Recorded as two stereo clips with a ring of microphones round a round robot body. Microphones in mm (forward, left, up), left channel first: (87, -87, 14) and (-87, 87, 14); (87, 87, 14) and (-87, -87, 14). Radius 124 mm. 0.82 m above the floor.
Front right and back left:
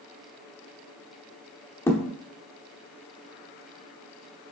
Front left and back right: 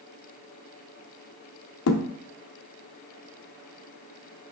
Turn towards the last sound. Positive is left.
turn(degrees=35)